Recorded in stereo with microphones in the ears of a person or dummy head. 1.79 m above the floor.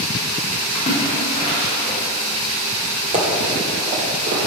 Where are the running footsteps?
35° right (ahead or behind), 2.5 m; by 4.4 s 50° right (ahead or behind), 3 m.